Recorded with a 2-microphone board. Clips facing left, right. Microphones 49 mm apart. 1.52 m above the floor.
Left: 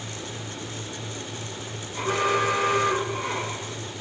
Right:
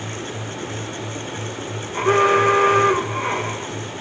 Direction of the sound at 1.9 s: 45° right (ahead or behind).